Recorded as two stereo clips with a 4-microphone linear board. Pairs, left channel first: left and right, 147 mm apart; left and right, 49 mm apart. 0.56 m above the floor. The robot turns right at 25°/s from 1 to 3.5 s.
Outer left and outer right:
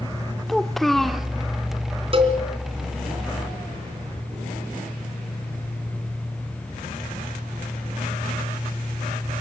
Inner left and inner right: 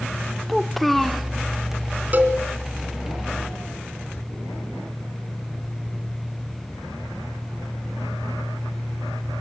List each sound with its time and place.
0.5 s a child speaking: centre (ahead or behind), 1.1 m; by 1.3 s 5° right (ahead or behind), 1.1 m
2.1 s a cowbell: 40° right (ahead or behind), 3 m; by 2.4 s 35° right (ahead or behind), 3 m